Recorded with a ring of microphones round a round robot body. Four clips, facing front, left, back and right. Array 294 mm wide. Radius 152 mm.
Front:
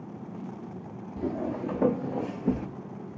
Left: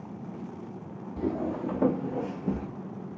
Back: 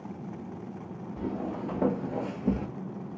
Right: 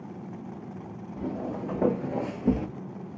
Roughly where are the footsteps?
Ahead left.